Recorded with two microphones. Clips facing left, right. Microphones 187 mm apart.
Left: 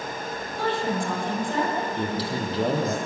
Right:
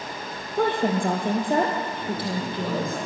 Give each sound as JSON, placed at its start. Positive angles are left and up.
{"t": 0.6, "sound": "a woman speaking", "side_deg": -55, "distance_m": 3.5}
{"t": 2.0, "sound": "a man speaking", "side_deg": 60, "distance_m": 5.0}